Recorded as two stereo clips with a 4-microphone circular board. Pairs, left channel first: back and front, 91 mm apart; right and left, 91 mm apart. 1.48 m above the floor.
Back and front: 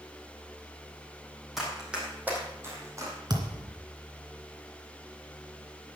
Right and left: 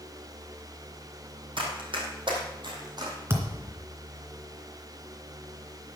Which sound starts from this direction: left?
Running footsteps, at 1.6 s.